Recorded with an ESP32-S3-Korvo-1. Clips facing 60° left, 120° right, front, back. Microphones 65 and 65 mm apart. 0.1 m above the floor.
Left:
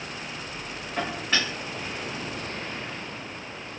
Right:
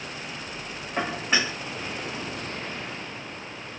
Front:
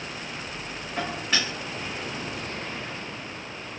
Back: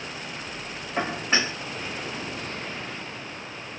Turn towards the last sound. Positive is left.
turn(degrees=-165)